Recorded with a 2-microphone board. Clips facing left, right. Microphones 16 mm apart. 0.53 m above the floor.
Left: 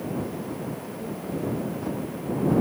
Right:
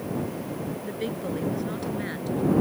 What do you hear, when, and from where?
0.8 s a woman speaking: 70° right (ahead or behind); by 2.5 s 60° right (ahead or behind)